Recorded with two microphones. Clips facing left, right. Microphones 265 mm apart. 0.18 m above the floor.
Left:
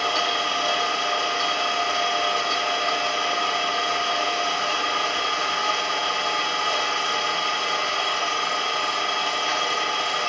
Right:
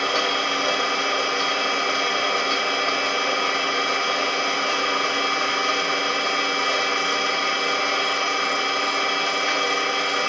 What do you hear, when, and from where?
0.0 s an engine running: 75° right (ahead or behind), 3.5 m